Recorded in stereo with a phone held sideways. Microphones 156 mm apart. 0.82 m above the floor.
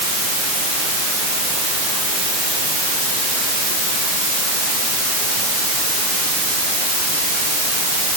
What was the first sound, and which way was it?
Only background noise.